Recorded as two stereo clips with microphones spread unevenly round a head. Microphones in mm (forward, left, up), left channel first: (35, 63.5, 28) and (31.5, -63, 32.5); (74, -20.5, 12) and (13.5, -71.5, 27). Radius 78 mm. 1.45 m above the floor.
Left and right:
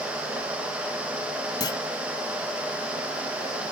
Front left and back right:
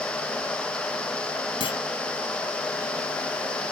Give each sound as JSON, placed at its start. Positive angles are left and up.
{"t": 1.6, "sound": "a clunk", "azimuth_deg": 30}